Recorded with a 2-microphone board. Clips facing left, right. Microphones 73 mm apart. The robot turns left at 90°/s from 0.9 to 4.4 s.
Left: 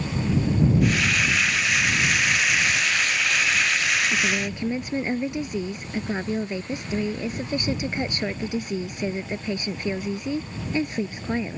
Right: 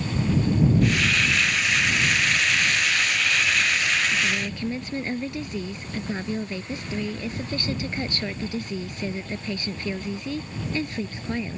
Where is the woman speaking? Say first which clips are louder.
Left 1 dB; 45° left (ahead or behind); by 11.6 s 20° left (ahead or behind).